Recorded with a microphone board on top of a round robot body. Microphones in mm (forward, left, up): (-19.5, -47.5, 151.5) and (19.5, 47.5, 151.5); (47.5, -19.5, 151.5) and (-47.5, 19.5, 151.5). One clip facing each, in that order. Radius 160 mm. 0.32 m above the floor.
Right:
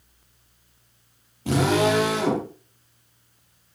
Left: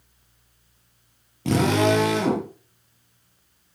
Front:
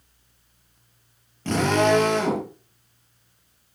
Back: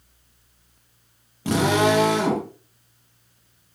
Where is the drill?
75° left, 8 m.